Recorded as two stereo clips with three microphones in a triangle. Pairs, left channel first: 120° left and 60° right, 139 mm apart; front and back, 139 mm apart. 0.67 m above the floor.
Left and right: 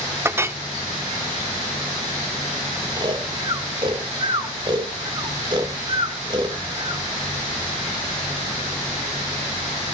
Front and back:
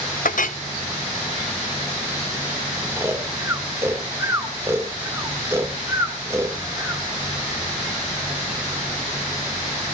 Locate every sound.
0.2 s a clink: 10° left, 0.7 m
3.0 s snoring: 110° right, 2.5 m